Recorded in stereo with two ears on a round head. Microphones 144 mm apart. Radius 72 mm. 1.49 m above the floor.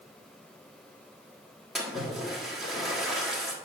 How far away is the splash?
About 1.6 m.